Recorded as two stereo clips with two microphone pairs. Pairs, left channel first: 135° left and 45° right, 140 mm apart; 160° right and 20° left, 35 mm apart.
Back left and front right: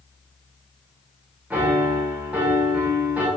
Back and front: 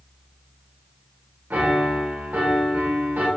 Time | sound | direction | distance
1.5 | a piano | 35° left | 0.9 m